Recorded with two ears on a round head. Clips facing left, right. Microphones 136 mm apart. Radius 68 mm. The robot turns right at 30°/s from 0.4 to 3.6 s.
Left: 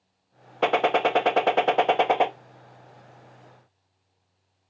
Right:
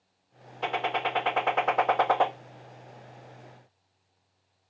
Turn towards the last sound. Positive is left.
turn(degrees=-160)